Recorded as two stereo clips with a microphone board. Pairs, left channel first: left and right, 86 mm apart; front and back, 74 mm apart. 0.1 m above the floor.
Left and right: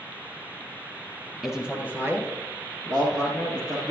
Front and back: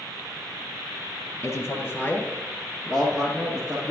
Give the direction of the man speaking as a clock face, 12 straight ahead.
12 o'clock.